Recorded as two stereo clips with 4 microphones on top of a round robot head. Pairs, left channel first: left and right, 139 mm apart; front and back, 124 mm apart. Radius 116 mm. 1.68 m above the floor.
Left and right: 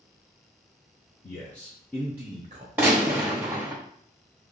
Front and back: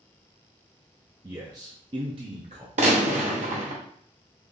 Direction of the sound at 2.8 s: 170° right.